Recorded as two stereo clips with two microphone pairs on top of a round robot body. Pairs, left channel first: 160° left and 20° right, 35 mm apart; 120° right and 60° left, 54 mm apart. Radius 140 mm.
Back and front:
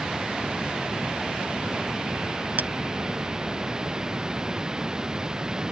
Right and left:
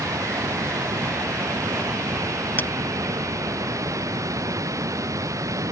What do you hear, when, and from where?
0.0 s running water: 55° left
2.6 s a clink: 60° right